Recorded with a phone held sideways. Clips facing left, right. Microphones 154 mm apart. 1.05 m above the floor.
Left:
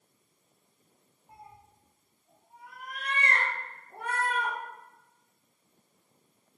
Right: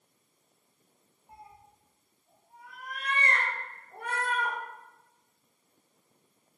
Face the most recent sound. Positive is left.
turn(degrees=60)  # may be behind; listen again after turning